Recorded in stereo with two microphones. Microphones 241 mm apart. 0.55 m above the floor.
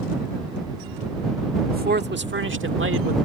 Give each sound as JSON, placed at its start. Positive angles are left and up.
{"t": 1.7, "sound": "a man speaking", "side_deg": -40}